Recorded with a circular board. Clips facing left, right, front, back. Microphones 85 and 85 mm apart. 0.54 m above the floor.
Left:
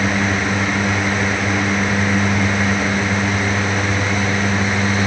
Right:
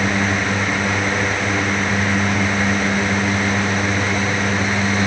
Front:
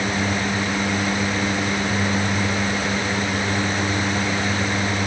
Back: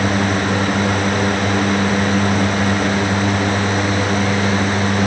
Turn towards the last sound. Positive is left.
No sound to turn to.